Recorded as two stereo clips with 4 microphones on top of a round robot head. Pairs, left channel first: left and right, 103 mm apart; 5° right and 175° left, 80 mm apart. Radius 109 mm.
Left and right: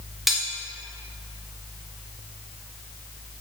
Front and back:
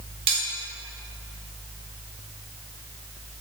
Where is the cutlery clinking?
Straight behind, 1.4 m.